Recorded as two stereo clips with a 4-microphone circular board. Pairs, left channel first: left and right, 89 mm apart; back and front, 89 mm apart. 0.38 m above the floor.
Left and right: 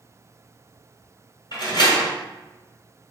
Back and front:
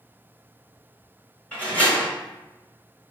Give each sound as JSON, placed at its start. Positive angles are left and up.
{"t": 1.5, "sound": "a door slam", "azimuth_deg": 110, "distance_m": 1.3}